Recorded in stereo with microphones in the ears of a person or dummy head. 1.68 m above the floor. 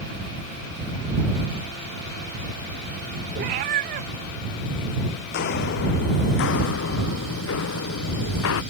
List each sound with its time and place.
3.4 s a cat meowing: 30° right (ahead or behind)
5.3 s footsteps: 60° left (ahead or behind); by 8.6 s 75° left (ahead or behind)